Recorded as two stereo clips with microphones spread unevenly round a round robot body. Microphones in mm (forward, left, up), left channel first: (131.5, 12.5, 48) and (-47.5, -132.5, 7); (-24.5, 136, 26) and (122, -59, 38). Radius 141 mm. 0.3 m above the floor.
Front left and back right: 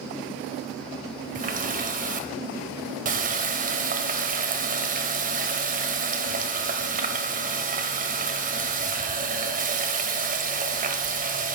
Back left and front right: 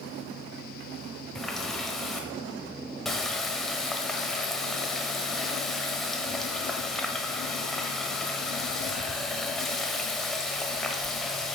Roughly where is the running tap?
Behind right.